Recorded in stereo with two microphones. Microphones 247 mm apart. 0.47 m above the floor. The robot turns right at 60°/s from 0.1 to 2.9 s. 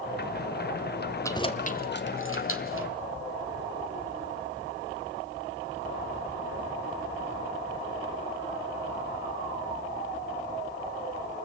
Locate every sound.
1.2 s keys jangling: 10° left (ahead or behind), 1.3 m; by 2.9 s 55° left (ahead or behind), 1.3 m